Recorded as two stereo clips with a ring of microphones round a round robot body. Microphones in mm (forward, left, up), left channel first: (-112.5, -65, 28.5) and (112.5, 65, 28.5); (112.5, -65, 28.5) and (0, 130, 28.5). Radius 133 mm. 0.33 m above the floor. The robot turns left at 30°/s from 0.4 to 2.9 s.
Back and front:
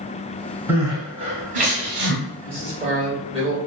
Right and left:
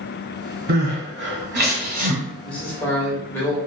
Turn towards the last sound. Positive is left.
turn(degrees=5)